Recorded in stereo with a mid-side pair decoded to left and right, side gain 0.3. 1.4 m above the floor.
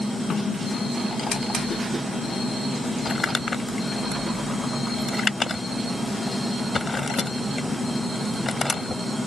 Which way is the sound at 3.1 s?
50° left.